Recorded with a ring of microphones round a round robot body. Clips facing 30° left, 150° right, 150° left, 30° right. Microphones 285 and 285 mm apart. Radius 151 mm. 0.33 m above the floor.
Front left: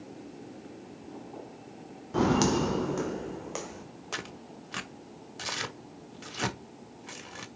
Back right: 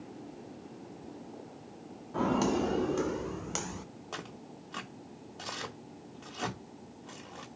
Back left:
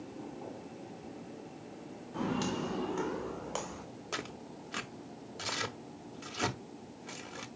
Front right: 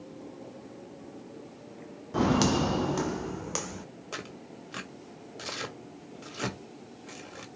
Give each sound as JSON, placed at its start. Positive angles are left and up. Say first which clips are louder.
{"t": 2.1, "sound": "footsteps", "louder": "front left 4 dB, front right 9 dB", "azimuth_deg": -10, "distance_m": 0.7}
{"t": 4.1, "sound": "tearing paper", "louder": "front left 3 dB, front right 1 dB", "azimuth_deg": 65, "distance_m": 1.7}